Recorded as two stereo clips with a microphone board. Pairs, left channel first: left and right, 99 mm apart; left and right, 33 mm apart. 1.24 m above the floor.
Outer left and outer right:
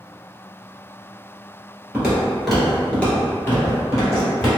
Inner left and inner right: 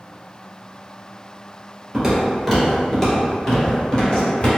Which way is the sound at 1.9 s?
10° right (ahead or behind).